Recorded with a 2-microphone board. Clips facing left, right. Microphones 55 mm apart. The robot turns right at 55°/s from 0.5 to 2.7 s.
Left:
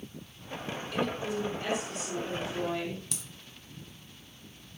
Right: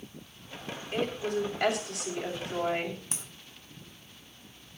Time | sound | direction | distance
0.9 | a woman speaking | 145° right | 7.5 m
3.1 | a crack | 35° right (ahead or behind) | 1.9 m